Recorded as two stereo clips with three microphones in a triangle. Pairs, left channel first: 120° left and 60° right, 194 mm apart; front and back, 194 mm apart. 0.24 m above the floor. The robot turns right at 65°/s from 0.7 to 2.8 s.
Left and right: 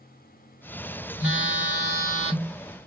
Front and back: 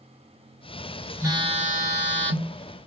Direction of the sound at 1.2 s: 105° left.